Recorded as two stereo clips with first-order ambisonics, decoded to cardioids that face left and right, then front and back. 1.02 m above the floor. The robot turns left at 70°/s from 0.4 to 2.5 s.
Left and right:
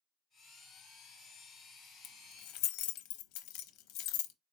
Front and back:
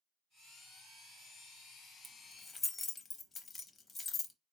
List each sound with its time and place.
2.0 s keys jangling: 105° left, 0.5 m; by 4.3 s 70° left, 0.5 m